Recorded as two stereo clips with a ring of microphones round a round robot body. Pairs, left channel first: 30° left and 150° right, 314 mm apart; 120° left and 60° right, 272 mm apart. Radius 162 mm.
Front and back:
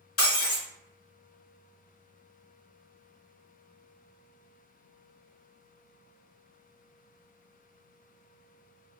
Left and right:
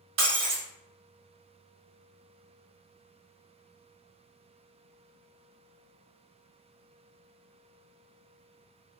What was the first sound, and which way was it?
Breaking glass, 15° right.